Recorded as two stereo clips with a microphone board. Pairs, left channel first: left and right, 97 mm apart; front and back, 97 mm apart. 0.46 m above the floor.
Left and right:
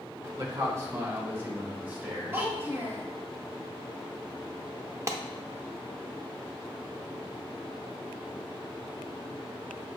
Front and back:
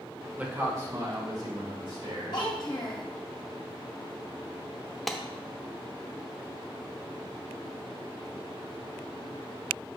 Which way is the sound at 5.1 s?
85° right.